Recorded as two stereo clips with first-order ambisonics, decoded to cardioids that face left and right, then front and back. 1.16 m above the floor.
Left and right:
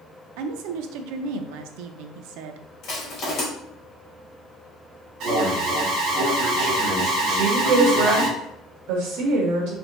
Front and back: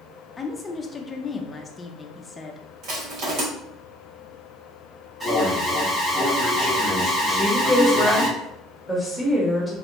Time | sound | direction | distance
0.4 | a woman speaking | 80° right | 0.5 m
2.8 | crushing | 145° left | 2 m
5.2 | an alarm | 110° right | 1.7 m
7.3 | a woman speaking | 95° right | 1.4 m